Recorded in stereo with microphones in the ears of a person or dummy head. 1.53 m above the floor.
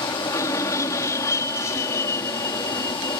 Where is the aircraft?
15° left (ahead or behind).